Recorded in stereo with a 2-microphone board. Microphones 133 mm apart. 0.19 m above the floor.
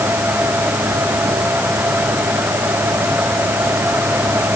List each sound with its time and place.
Only background noise.